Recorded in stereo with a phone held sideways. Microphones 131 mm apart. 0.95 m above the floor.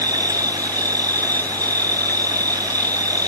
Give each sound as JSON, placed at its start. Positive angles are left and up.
{"t": 0.0, "sound": "an insect", "side_deg": -30}